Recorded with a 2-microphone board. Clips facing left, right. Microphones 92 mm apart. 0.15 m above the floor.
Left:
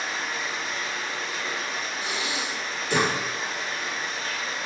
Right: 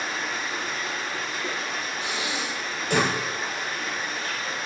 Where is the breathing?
65° right (ahead or behind), 1.4 m.